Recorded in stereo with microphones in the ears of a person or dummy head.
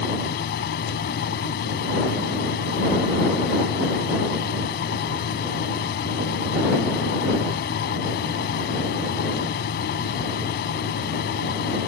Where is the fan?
55° left (ahead or behind).